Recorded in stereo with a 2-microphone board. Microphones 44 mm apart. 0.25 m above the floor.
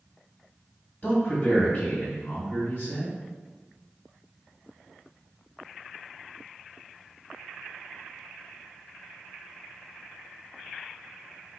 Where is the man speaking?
35° left (ahead or behind), 1.9 m.